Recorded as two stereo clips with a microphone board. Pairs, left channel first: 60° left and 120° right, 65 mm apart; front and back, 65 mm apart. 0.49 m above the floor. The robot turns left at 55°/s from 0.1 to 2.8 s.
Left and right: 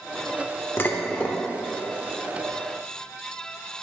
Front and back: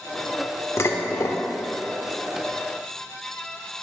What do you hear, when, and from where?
0.8 s dishes clattering: 20° left, 0.8 m; by 1.4 s 15° right, 0.8 m